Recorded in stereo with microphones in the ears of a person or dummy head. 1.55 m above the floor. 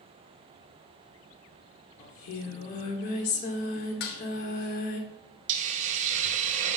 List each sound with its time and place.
2.0 s singing: 40° left (ahead or behind), 1.4 m
4.0 s dishes clattering: 55° left (ahead or behind), 0.9 m
5.5 s a hiss: 40° right (ahead or behind), 0.8 m